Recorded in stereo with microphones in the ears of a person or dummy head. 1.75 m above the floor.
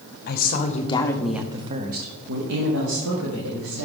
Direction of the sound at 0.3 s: 50° left (ahead or behind).